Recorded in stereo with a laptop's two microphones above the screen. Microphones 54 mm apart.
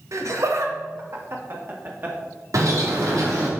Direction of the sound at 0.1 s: 70° right (ahead or behind).